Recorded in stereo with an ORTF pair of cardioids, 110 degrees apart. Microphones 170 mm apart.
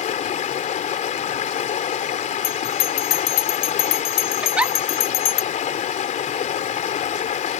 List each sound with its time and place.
0.0 s running water: 50° left
2.4 s a bell: 60° left
4.4 s a giggle: 5° right